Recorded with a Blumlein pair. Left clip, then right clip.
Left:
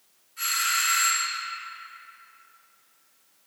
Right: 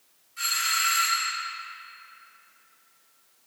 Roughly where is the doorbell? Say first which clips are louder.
Even; ahead.